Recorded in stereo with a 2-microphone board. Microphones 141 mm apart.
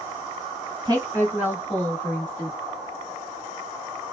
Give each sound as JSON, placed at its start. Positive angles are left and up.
{"t": 0.8, "sound": "a woman speaking", "side_deg": -30, "distance_m": 1.8}